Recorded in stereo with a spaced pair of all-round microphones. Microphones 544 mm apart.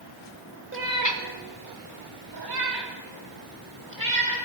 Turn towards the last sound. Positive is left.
turn(degrees=-35)  # may be behind; listen again after turning